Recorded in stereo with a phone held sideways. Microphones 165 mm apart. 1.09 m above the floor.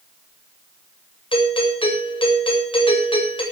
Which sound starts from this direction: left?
A doorbell, at 1.3 s.